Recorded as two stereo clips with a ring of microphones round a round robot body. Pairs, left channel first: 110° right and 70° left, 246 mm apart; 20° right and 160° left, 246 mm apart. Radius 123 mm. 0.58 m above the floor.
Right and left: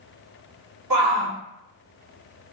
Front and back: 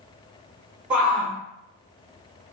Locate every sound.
0.9 s a shout: 70° left, 2 m